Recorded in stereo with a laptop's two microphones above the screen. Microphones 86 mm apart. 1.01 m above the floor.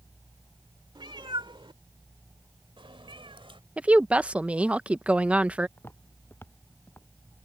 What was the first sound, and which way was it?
A cat meowing, 65° right (ahead or behind).